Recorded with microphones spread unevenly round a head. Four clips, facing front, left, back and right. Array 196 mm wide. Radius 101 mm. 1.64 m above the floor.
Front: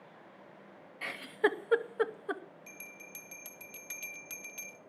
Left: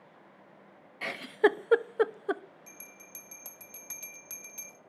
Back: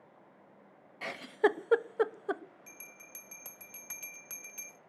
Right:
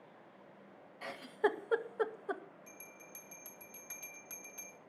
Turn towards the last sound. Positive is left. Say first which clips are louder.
# left 1 dB, front 3 dB
turn(degrees=130)